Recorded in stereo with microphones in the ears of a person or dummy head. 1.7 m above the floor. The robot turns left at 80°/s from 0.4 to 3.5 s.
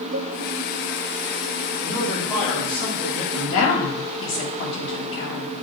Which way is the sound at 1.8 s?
140° right.